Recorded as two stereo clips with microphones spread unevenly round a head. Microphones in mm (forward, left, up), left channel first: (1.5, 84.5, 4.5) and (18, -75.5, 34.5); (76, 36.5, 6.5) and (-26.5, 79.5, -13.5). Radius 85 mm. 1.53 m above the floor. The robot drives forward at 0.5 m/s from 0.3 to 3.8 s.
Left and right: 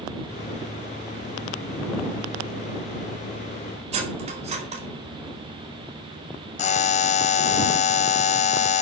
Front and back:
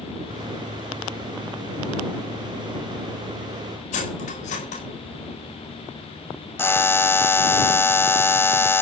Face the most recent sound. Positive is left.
turn(degrees=50)